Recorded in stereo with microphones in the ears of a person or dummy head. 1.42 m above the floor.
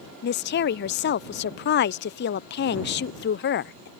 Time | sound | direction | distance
0.2 | a woman speaking | 50° left (ahead or behind) | ?